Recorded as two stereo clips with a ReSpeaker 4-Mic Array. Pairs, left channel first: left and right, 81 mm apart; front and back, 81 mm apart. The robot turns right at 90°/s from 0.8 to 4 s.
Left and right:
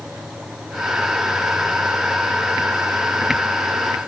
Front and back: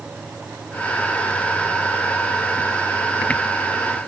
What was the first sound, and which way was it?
Only background noise.